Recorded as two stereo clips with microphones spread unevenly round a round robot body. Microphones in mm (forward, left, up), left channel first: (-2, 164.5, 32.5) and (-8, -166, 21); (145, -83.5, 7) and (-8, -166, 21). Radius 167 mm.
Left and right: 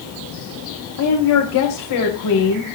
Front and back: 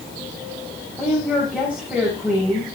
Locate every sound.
1.0 s a woman speaking: 120° left, 2.5 m